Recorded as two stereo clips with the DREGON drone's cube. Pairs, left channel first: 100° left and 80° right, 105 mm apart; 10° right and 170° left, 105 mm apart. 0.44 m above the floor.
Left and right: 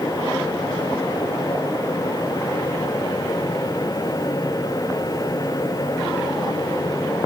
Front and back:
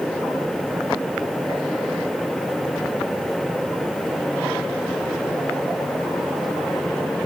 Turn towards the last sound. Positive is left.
No sound to turn to.